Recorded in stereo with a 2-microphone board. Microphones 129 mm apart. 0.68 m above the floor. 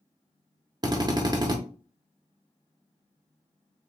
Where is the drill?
35° right (ahead or behind), 0.7 m.